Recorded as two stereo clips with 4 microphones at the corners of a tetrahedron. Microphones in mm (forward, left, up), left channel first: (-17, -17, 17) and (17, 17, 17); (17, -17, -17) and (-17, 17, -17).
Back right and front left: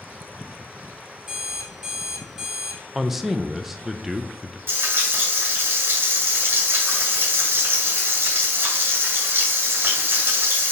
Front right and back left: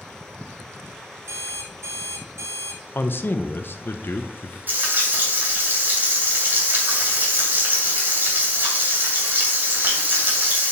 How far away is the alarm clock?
About 3.5 m.